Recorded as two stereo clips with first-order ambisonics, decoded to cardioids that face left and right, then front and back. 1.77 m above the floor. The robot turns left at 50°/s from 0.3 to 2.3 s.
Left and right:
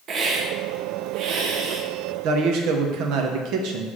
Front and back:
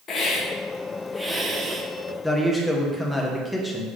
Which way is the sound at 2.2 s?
85° right.